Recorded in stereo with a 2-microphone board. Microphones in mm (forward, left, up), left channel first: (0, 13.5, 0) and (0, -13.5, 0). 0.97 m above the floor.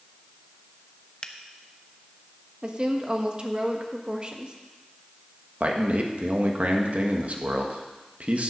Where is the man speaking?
60° right (ahead or behind), 1.3 m.